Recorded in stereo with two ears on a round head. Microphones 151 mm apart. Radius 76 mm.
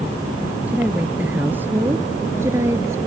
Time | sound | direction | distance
0.7 | a woman speaking | 10° right (ahead or behind) | ?